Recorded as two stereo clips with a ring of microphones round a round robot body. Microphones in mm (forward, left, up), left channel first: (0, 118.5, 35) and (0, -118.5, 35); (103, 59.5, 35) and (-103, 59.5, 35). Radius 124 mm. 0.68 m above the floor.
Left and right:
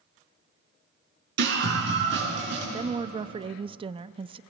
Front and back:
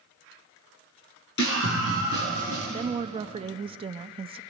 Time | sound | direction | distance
1.4 | a scream | 45° right | 10 m
2.7 | a woman speaking | 140° right | 0.5 m